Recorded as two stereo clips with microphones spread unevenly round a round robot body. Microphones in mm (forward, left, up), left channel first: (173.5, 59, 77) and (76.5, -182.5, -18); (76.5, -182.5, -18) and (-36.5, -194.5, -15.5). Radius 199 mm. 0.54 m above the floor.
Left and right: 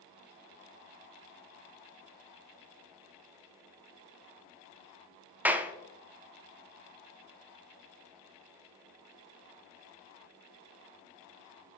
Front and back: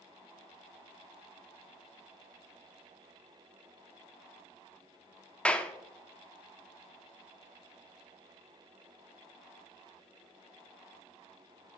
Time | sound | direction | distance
5.5 | a clap | 65° right | 0.5 m